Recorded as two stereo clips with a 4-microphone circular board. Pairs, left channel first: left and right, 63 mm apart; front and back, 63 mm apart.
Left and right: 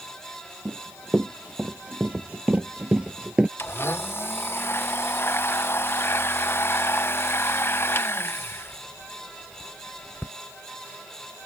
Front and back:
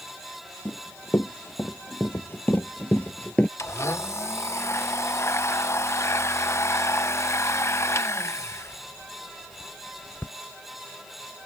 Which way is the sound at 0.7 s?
30° right.